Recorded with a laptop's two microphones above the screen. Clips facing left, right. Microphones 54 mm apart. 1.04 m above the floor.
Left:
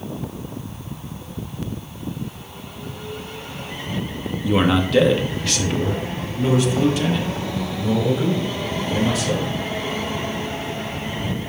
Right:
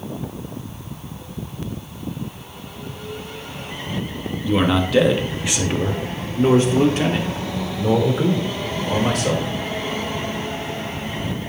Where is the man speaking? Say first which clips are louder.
Even; 15° left (ahead or behind), 1.3 m; by 9.5 s 55° right (ahead or behind), 4 m.